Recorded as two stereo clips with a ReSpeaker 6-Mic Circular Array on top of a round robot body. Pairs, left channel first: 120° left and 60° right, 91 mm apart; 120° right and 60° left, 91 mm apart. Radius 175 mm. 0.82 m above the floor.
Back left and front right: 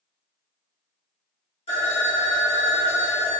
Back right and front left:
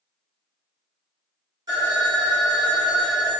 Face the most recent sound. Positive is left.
turn(degrees=110)